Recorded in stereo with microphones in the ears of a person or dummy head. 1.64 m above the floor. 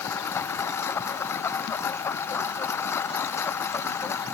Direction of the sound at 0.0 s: 10° left (ahead or behind).